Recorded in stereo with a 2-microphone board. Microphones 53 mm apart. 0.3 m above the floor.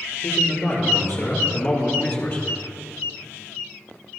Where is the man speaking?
65° left (ahead or behind), 5.5 m; by 2.5 s 40° left (ahead or behind), 4 m.